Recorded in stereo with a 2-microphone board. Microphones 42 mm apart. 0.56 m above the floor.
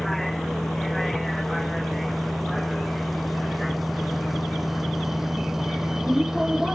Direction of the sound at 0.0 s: 5° left (ahead or behind).